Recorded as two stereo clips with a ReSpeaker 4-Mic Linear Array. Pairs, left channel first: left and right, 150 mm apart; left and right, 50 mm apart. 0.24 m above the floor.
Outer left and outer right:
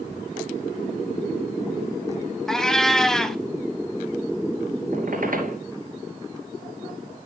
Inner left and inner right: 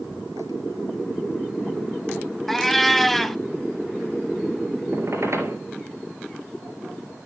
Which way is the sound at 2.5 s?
5° left (ahead or behind).